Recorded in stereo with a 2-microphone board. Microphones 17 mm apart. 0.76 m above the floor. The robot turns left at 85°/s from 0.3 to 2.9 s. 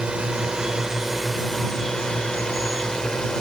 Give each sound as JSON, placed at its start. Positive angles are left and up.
{"t": 0.0, "sound": "a drone", "azimuth_deg": -95}